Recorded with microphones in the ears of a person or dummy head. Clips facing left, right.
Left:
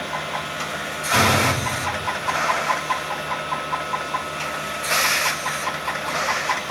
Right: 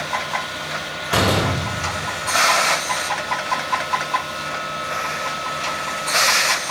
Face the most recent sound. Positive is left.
turn(degrees=-55)  # may be behind; listen again after turning